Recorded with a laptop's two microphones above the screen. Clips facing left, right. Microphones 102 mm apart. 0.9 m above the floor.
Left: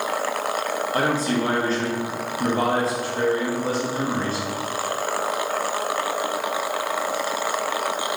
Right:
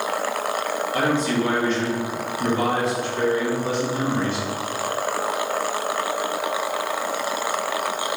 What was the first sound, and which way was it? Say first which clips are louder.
A man speaking: right 1 dB; 35° left (ahead or behind).